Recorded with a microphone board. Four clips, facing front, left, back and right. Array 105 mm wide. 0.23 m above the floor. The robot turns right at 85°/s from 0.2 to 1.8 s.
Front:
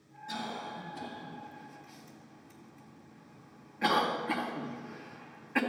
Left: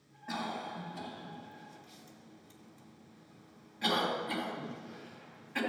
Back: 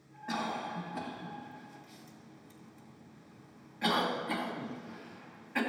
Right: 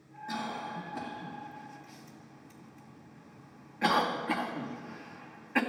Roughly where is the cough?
Behind.